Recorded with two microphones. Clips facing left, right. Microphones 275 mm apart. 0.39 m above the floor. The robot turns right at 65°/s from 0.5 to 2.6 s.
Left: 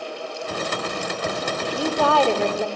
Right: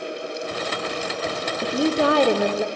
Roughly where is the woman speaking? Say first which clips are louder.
Right 4 dB; right.